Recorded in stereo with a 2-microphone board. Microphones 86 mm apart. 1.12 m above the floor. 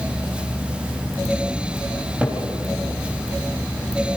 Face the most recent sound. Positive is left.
turn(degrees=-15)  # may be behind; listen again after turning